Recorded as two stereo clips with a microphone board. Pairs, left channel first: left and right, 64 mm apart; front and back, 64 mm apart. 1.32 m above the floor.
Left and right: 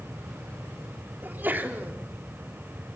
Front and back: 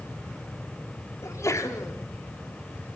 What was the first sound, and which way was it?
A sneeze, 30° right.